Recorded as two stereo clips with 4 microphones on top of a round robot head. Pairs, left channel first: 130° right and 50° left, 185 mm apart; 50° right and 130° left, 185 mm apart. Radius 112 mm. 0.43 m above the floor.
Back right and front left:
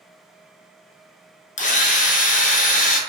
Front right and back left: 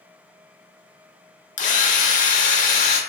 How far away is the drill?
About 0.9 m.